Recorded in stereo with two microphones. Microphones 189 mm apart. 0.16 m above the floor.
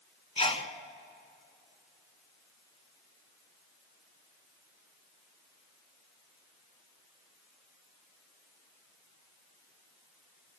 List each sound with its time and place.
0.4 s a sneeze: 30° left (ahead or behind), 1.5 m